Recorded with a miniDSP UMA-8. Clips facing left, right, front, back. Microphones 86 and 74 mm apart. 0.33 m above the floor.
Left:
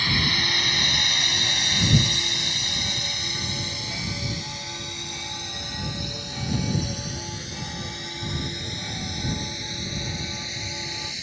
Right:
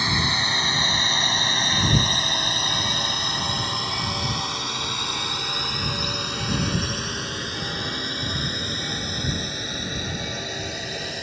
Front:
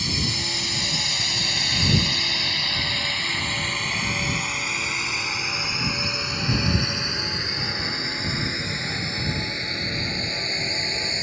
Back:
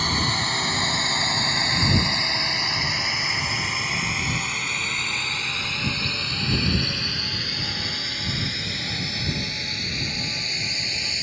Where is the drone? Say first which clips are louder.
Right 2 dB, back 5 dB; 155° right; by 11.2 s 55° right.